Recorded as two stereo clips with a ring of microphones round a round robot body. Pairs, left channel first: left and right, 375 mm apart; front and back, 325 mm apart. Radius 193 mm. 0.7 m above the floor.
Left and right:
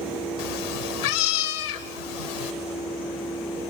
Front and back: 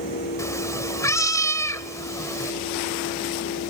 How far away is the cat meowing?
About 1.3 m.